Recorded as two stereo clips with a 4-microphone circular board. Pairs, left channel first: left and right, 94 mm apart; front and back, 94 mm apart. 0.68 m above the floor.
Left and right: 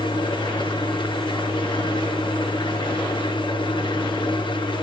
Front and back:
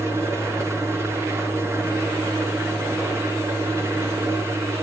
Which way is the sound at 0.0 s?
120° left.